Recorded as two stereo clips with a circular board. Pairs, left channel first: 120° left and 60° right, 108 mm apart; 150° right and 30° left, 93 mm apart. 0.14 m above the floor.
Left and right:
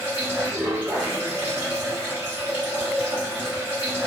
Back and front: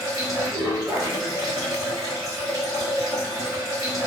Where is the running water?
5° left, 1.7 m.